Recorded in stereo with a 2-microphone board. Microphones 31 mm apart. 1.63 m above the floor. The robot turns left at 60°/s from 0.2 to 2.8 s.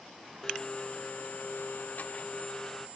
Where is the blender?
160° left, 0.7 m; by 2.9 s 20° left, 0.7 m.